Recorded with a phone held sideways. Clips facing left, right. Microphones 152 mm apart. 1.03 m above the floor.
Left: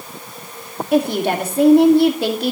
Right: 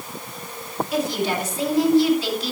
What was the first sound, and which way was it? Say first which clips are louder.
A woman speaking: left 7 dB; 55° left (ahead or behind).